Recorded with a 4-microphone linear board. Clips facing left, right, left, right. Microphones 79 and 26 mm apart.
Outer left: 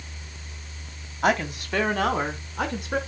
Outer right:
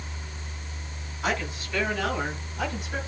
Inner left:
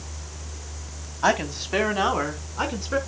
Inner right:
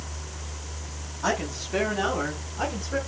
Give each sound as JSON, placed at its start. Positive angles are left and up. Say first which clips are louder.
{"t": 1.2, "sound": "a woman speaking", "louder": "outer left 6 dB, inner left 5 dB", "side_deg": 60, "distance_m": 2.5}